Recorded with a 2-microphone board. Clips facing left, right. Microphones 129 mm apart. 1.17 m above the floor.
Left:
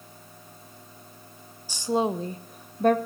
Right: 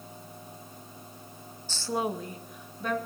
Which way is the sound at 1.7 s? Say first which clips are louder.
Left 5 dB; 10° left (ahead or behind).